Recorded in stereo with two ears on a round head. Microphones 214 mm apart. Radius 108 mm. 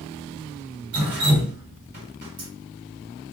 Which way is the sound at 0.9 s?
45° right (ahead or behind).